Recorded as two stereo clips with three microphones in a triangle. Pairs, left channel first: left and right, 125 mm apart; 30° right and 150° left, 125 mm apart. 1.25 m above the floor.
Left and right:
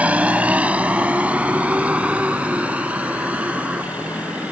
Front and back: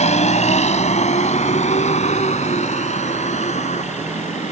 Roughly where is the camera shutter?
I don't hear a camera shutter.